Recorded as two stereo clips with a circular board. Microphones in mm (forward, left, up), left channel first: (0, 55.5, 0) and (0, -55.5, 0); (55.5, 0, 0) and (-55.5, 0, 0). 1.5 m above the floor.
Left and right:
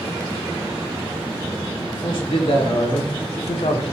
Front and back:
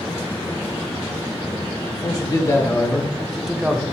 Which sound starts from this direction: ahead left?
A man speaking, at 1.9 s.